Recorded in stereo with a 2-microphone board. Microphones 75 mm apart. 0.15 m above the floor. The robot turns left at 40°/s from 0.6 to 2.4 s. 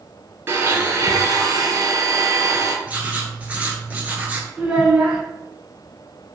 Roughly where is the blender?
Ahead right.